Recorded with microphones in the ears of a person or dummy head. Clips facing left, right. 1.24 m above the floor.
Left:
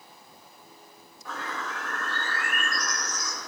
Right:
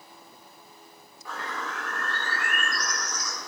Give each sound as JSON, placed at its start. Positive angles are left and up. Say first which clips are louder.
{"t": 1.2, "sound": "a bird", "louder": "even", "side_deg": 5, "distance_m": 4.5}